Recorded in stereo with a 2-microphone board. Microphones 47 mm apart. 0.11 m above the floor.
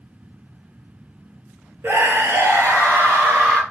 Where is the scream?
50° right (ahead or behind), 3 m; by 3.6 s 40° right (ahead or behind), 3 m.